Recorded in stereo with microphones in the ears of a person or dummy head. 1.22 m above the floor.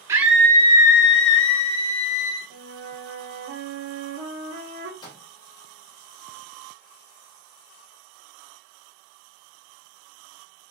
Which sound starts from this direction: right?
A flute, at 2.5 s.